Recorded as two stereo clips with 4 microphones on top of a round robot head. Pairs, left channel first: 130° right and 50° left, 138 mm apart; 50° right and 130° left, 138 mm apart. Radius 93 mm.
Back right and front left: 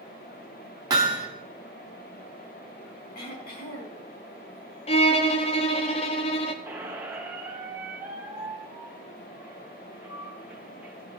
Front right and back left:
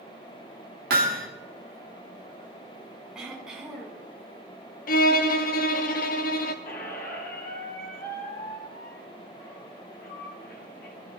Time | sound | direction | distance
0.9 | hammering | 110° left | 1.7 m
3.1 | throat clearing | 145° right | 5 m
4.9 | a violin | 75° right | 0.9 m
6.7 | a squeak | 25° right | 1.8 m